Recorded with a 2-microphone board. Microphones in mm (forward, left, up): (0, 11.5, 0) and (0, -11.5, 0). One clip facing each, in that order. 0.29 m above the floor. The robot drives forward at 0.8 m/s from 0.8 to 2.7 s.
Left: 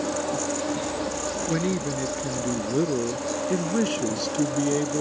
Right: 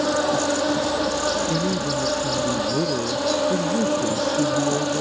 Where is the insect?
55° right (ahead or behind); by 5.0 s 60° right (ahead or behind).